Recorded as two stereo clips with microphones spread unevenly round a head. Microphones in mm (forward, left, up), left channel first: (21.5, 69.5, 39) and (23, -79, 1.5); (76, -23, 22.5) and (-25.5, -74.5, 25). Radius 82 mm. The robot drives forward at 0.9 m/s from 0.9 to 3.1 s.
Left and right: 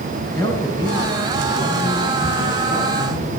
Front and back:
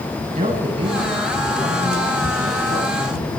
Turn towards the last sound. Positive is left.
turn(degrees=175)